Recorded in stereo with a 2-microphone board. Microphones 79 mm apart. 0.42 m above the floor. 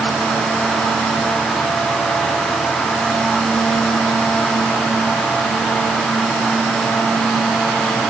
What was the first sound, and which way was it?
Only background noise.